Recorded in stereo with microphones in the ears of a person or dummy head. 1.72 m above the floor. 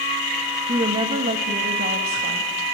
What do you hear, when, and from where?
0.7 s a woman speaking: 20° right (ahead or behind), 1.9 m; by 2.5 s 55° right (ahead or behind), 2.5 m